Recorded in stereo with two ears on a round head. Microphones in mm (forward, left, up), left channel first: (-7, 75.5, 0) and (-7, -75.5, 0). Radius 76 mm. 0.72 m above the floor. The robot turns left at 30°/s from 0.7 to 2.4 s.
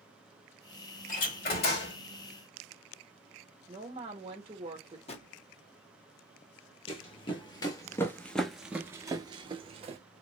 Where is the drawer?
35° left (ahead or behind), 0.8 m.